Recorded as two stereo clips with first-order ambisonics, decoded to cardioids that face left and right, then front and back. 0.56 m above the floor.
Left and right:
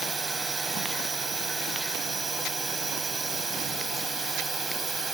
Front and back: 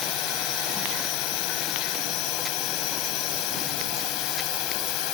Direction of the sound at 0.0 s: 15° right.